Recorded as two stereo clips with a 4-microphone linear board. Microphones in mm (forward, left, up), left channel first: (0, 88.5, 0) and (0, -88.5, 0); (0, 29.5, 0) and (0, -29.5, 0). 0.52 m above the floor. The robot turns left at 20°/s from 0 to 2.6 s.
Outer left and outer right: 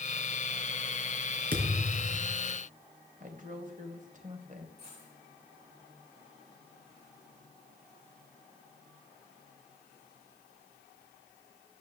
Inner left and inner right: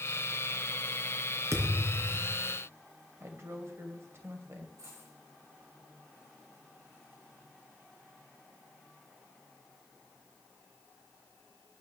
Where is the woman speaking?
45° right (ahead or behind), 2.5 m.